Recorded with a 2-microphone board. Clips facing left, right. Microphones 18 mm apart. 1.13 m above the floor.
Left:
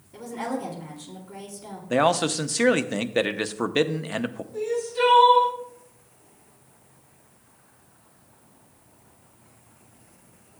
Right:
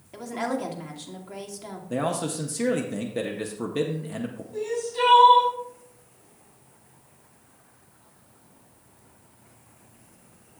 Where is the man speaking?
45° left (ahead or behind), 0.6 m.